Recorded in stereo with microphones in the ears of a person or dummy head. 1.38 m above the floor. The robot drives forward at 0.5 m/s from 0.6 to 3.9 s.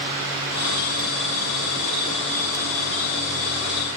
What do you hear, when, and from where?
Only background noise.